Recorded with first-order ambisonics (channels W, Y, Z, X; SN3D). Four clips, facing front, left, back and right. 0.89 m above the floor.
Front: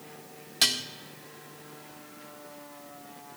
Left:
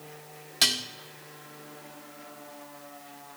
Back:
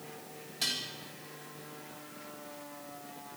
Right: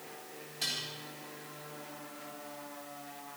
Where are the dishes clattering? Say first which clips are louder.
Left 11 dB, front 8 dB; 50° left, 1.4 m.